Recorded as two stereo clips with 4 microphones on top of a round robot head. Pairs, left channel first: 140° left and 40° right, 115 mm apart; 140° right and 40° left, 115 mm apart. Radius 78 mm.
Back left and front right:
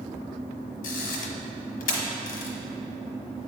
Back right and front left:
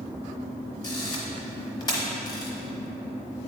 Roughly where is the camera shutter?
Behind.